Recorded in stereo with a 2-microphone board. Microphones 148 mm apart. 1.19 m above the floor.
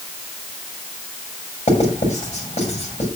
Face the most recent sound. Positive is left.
turn(degrees=50)  # may be behind; listen again after turning